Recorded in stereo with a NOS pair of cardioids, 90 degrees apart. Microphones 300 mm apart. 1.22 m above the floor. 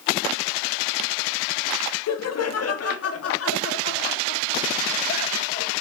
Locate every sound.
2.1 s laughter: 60° left, 1.9 m; by 5.7 s 40° left, 3.5 m